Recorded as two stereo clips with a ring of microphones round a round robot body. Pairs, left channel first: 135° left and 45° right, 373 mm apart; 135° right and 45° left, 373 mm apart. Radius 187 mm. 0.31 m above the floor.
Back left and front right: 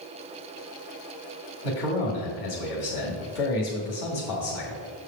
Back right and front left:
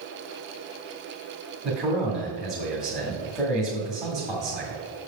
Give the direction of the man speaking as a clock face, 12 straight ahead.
8 o'clock.